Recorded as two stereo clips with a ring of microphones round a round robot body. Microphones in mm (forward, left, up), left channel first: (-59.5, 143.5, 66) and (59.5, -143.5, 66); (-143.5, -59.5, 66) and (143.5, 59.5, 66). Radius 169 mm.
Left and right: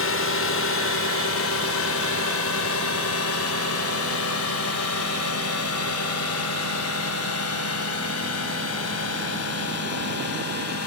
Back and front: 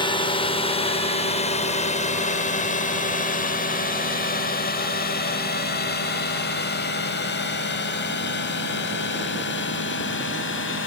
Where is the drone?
135° left; by 10.9 s 150° left.